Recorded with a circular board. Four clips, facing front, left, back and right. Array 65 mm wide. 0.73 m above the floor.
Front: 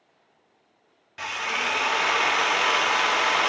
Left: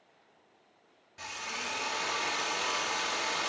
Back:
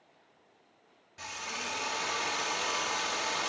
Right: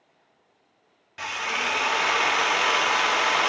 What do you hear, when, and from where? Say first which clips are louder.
1.2 s a drill: right 11 dB, front 11 dB; 50° right, 0.7 m